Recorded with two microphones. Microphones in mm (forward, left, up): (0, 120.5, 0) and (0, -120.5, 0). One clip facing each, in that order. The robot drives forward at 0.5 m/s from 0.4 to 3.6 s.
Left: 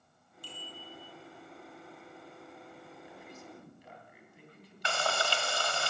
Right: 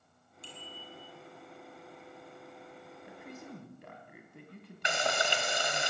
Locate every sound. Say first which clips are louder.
0.4 s a bicycle bell: left 1 dB; 20° right (ahead or behind), 7 m
3.0 s a man speaking: right 6 dB; 65° right (ahead or behind), 3 m; by 5.8 s 60° right (ahead or behind), 3 m
4.8 s frying: right 1 dB; 20° right (ahead or behind), 1.9 m